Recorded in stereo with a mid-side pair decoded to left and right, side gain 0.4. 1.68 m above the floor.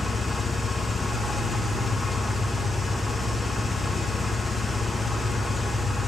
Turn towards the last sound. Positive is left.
turn(degrees=15)